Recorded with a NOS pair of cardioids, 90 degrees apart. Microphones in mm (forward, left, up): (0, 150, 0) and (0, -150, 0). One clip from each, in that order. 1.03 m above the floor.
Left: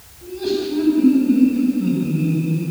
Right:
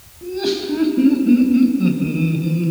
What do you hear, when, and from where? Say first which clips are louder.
0.2 s laughter: right 1 dB; 55° right, 6 m; by 2.7 s 65° right, 4 m